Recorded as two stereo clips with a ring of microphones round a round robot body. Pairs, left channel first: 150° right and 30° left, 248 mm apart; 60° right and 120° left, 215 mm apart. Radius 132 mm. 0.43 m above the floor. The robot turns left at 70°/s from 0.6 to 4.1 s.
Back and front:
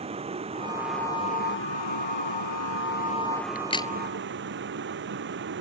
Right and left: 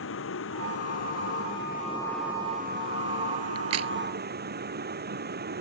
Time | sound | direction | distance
0.0 | a vehicle | 40° right | ?
3.5 | a crack | 150° left | ?